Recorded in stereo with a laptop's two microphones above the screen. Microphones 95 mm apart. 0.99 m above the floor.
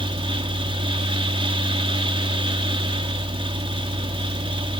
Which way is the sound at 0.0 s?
70° right (ahead or behind).